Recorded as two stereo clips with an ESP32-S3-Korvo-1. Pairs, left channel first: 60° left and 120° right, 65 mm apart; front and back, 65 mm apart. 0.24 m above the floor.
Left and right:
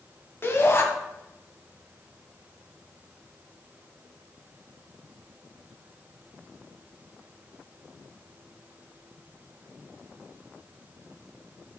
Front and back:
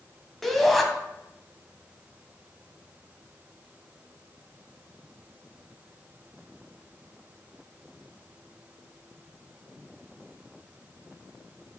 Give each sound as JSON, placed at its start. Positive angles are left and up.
{"t": 0.4, "sound": "a shout", "azimuth_deg": 85, "distance_m": 1.6}